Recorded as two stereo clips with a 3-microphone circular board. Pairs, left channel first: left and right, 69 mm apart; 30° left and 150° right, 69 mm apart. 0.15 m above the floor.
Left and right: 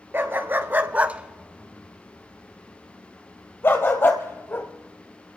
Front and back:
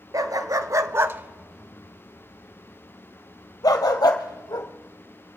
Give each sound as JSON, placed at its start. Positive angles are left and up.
{"t": 0.1, "sound": "a dog barking", "azimuth_deg": -140, "distance_m": 1.1}